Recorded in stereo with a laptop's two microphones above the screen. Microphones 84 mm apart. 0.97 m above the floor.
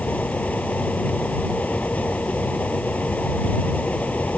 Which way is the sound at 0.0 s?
20° left (ahead or behind).